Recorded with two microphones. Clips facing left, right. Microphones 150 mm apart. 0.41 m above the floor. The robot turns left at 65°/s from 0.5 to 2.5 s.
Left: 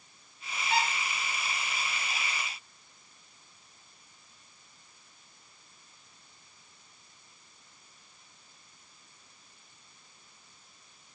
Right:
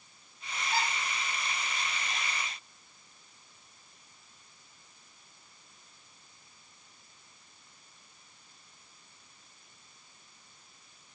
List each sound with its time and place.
0.7 s a squeak: 70° left (ahead or behind), 5.5 m; by 0.9 s 60° left (ahead or behind), 5.5 m